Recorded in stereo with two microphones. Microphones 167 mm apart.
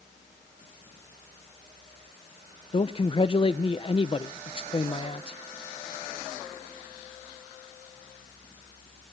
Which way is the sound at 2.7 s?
35° left (ahead or behind).